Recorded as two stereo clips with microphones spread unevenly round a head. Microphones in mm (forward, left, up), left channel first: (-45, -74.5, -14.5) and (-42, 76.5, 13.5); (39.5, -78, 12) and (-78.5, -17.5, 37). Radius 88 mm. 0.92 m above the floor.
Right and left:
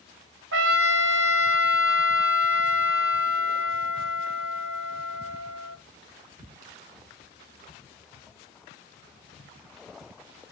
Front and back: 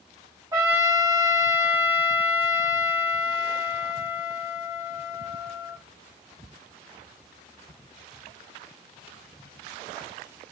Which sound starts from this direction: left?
A trumpet, at 0.5 s.